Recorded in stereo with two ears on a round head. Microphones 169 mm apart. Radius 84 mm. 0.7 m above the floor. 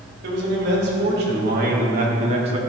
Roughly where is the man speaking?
Right.